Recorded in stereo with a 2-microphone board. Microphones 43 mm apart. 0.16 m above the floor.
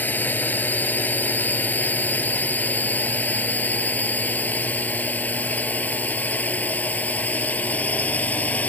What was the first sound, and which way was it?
A drone, 45° left (ahead or behind).